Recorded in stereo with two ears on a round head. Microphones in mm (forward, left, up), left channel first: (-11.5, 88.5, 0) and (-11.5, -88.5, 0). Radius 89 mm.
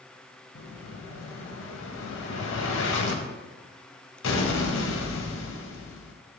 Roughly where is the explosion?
Left.